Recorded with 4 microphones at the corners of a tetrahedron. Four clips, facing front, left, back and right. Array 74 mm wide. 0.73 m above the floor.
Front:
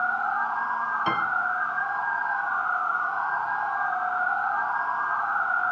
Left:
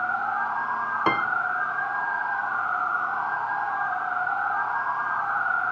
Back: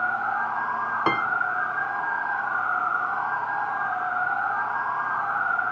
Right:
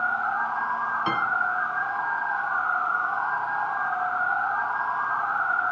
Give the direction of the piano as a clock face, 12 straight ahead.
8 o'clock.